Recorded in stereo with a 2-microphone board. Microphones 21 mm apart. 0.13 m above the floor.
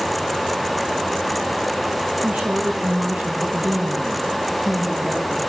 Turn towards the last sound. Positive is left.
turn(degrees=-85)